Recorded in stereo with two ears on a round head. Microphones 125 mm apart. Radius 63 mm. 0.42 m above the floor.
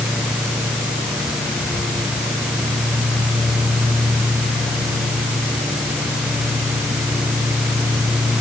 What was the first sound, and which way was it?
Only background noise.